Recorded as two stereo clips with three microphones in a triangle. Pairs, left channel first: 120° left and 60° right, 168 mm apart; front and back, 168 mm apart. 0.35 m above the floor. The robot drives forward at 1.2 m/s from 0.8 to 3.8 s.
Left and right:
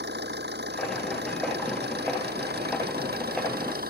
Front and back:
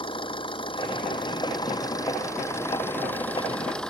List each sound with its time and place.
0.0 s an engine running: 60° right; by 3.9 s 85° right